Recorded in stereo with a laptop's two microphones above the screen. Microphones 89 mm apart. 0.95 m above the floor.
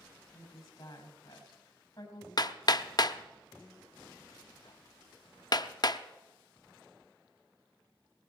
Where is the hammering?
45° left (ahead or behind), 0.6 m.